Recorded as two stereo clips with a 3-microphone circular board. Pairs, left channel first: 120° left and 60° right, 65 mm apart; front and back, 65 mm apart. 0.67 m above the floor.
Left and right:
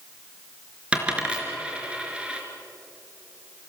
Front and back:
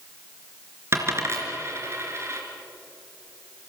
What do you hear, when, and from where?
0.9 s a dropped coin: 135° right, 4 m